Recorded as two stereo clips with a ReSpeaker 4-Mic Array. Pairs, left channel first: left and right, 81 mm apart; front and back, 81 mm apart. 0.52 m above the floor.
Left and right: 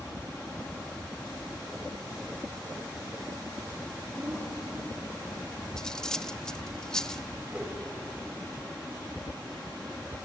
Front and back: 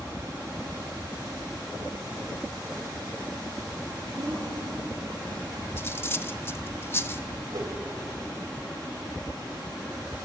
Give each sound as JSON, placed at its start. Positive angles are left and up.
{"t": 4.2, "sound": "a woman speaking", "azimuth_deg": -150, "distance_m": 8.0}
{"t": 5.8, "sound": "cutlery clinking", "azimuth_deg": 15, "distance_m": 0.6}
{"t": 7.5, "sound": "a whoosh", "azimuth_deg": -165, "distance_m": 2.5}